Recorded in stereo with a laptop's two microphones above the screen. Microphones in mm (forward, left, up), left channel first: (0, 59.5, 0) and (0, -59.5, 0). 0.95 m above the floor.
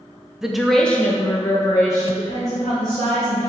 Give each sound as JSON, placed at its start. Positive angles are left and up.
{"t": 0.4, "sound": "a woman speaking", "side_deg": -5, "distance_m": 0.6}